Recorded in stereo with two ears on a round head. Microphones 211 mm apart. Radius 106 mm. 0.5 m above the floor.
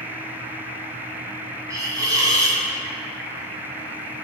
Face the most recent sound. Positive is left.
turn(degrees=-15)  # may be behind; listen again after turning